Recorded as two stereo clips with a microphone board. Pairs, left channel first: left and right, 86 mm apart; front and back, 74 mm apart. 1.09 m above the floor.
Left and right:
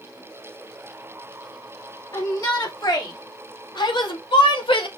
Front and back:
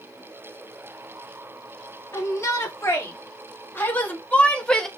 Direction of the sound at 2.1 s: 45° left.